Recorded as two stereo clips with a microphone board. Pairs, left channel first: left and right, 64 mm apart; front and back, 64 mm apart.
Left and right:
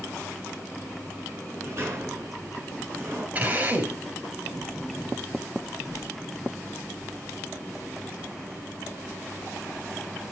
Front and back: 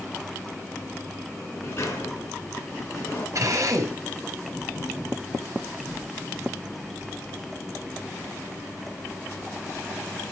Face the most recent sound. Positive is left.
turn(degrees=-150)